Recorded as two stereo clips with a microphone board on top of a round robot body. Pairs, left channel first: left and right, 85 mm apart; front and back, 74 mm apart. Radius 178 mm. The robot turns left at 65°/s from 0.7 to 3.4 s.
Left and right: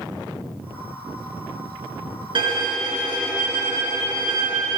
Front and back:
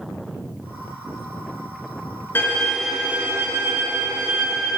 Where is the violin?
60° right, 2.5 m; by 4.8 s 130° right, 2.5 m.